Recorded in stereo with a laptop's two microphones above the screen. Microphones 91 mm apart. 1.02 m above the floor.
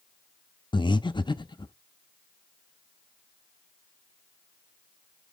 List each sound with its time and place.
0.7 s breathing: 55° left (ahead or behind), 0.5 m